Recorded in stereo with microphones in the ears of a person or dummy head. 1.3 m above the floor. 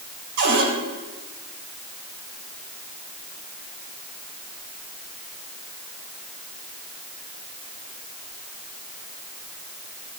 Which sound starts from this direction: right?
A cupboard door, at 0.4 s.